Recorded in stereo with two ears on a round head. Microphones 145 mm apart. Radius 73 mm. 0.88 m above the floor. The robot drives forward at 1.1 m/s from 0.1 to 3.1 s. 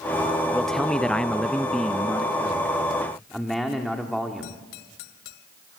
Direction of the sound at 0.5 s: Centre (ahead or behind).